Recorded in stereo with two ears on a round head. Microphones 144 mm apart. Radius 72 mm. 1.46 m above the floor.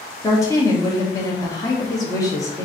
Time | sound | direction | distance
0.2 | a woman speaking | 20° left (ahead or behind) | 1.1 m